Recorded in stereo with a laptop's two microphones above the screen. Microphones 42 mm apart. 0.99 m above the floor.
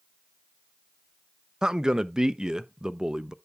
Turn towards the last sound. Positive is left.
turn(degrees=-20)  # may be behind; listen again after turning